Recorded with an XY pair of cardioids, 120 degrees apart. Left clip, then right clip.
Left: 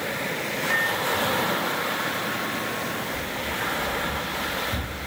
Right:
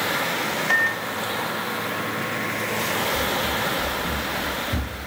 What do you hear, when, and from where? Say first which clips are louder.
0.7 s a microwave: right 1 dB; 35° right, 2.5 m
3.1 s running footsteps: right 5 dB; 20° right, 5 m